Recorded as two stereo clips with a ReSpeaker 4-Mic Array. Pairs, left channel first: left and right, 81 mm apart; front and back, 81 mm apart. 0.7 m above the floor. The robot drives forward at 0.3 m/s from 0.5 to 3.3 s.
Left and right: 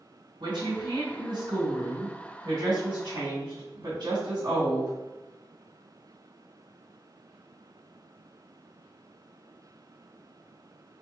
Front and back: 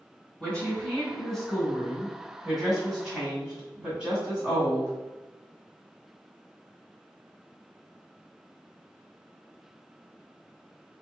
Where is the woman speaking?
80° right, 1.8 m; by 4.9 s 105° right, 1.8 m.